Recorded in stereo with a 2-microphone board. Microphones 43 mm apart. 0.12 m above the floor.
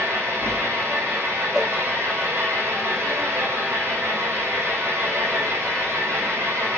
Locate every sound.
0.0 s an engine running: 75° right (ahead or behind), 5.5 m
1.5 s a cowbell: 5° right (ahead or behind), 1.0 m